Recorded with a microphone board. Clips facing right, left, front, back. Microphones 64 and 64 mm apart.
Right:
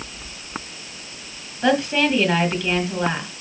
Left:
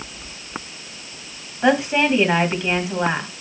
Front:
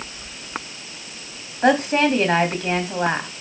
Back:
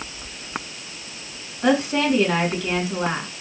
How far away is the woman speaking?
About 3 m.